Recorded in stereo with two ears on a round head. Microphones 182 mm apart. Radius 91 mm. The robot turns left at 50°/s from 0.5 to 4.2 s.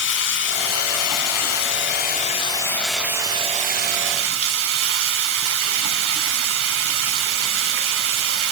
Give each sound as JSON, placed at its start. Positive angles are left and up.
{"t": 0.0, "sound": "running water", "azimuth_deg": 120, "distance_m": 1.2}